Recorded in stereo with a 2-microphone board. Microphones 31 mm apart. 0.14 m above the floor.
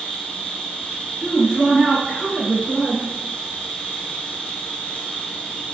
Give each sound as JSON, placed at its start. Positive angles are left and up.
{"t": 0.0, "sound": "an insect", "side_deg": 45, "distance_m": 1.1}
{"t": 1.2, "sound": "a woman speaking", "side_deg": 15, "distance_m": 1.6}